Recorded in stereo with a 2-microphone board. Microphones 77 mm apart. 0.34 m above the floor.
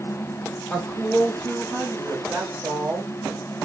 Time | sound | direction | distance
0.7 | a woman speaking | 15° left (ahead or behind) | 1.1 m